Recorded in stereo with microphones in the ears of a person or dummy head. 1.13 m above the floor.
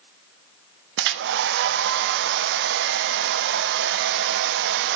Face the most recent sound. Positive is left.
turn(degrees=-65)  # may be behind; listen again after turning